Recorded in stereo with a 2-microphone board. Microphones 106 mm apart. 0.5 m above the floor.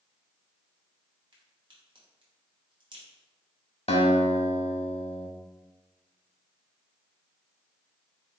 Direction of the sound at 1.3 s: 45° right (ahead or behind).